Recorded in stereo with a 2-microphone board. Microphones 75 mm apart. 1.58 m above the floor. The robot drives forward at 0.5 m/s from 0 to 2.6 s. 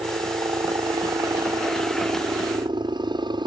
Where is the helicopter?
75° right (ahead or behind).